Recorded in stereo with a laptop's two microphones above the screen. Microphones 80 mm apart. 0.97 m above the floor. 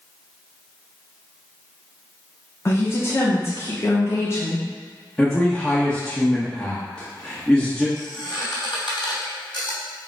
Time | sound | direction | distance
2.6 | a woman speaking | 30° left (ahead or behind) | 0.8 m
5.2 | a man speaking | 5° left (ahead or behind) | 0.9 m
8.0 | a squeak | 75° left (ahead or behind) | 1.8 m